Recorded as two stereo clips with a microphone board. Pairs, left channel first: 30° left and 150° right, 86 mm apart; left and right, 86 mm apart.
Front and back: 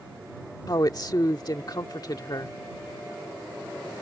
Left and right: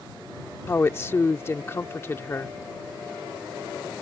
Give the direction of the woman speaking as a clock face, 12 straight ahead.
11 o'clock.